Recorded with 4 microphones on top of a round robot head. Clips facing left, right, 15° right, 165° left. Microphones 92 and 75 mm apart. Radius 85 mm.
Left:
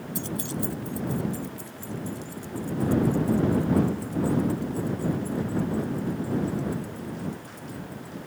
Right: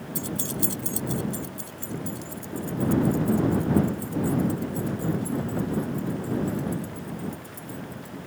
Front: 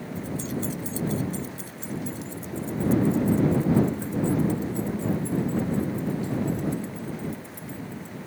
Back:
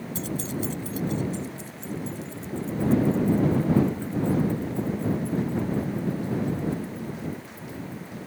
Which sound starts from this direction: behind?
Keys jangling, at 0.1 s.